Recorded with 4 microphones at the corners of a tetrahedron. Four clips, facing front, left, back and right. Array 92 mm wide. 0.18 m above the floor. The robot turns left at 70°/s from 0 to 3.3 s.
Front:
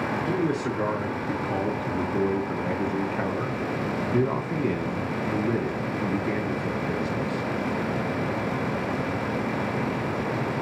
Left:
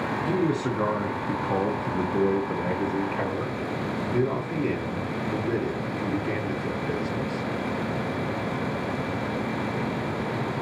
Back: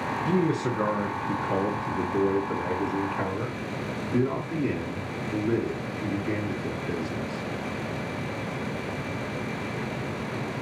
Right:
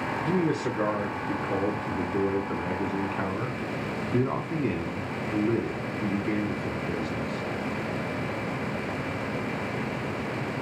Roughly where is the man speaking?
Behind.